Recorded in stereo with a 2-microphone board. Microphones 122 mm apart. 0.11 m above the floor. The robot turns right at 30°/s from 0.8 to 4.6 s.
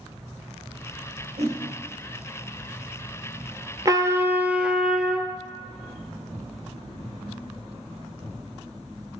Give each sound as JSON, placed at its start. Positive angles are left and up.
{"t": 1.4, "sound": "a whoosh", "side_deg": -70, "distance_m": 1.8}
{"t": 3.9, "sound": "a trumpet", "side_deg": -30, "distance_m": 0.5}